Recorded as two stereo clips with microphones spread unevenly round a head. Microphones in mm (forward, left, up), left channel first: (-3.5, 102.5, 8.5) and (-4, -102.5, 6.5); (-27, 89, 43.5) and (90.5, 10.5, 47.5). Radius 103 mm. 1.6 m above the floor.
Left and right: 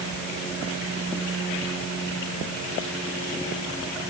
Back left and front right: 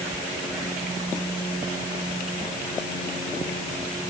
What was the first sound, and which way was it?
Only background noise.